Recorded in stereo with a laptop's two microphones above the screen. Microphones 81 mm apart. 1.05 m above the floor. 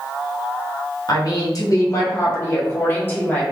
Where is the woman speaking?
50° left (ahead or behind), 1.0 m; by 3.4 s 20° left (ahead or behind), 1.5 m.